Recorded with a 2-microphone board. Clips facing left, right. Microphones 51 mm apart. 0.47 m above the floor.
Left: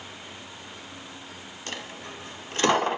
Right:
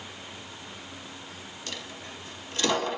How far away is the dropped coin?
About 0.5 m.